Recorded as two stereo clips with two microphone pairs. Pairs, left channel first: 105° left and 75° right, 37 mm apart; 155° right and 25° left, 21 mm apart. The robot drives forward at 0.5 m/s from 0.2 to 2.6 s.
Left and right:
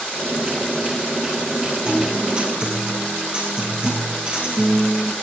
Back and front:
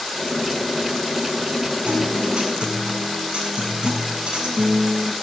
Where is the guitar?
10° right, 9.5 m.